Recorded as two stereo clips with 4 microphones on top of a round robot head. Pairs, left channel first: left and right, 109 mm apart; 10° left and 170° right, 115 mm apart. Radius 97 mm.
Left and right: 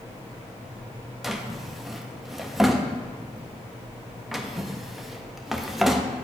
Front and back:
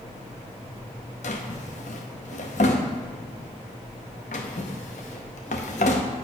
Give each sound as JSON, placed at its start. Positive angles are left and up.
{"t": 1.2, "sound": "a drawer", "azimuth_deg": 0, "distance_m": 0.6}